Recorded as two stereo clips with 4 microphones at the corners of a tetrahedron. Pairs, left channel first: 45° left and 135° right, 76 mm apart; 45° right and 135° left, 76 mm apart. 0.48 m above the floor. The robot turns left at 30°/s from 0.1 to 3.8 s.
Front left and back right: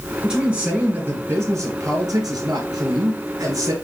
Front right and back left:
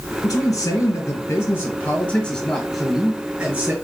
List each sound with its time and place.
0.2 s a man speaking: 55° right, 3 m; by 3.7 s 160° right, 3 m